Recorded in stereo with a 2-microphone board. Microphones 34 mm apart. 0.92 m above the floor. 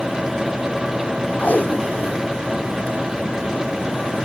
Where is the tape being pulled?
55° left (ahead or behind), 1.1 m.